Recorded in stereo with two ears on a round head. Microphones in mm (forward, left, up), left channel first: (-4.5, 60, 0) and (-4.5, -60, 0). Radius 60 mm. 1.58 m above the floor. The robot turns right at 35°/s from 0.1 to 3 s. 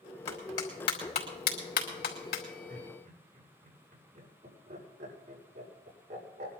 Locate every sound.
0.3 s a clap: 20° left (ahead or behind), 3.5 m; by 2.4 s 80° left, 3.5 m
2.7 s laughter: 65° right (ahead or behind), 6 m; by 6.5 s 55° right (ahead or behind), 6 m